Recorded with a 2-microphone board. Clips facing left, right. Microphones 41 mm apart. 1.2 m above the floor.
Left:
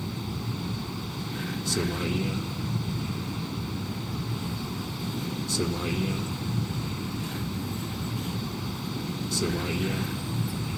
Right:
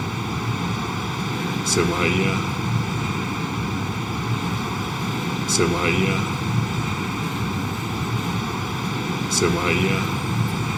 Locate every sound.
0.0 s a vehicle: 85° right